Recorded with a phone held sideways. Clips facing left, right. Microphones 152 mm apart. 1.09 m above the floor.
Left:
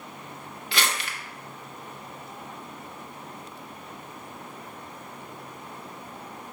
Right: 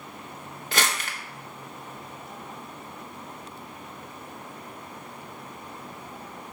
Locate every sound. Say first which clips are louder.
0.7 s crumpling: right 1 dB; 45° right (ahead or behind), 1.1 m